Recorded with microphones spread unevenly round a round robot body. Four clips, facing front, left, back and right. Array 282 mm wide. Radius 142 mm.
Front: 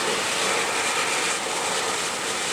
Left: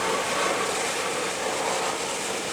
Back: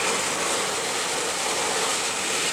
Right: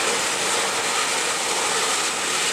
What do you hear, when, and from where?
Only background noise.